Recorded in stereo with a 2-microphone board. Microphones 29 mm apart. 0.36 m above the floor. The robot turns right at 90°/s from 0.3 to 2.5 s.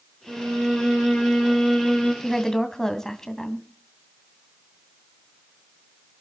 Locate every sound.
0.3 s a violin: 140° right, 6 m; by 2.1 s 25° left, 6 m
2.2 s a woman speaking: 5° right (ahead or behind), 2 m; by 3.6 s 20° left (ahead or behind), 2 m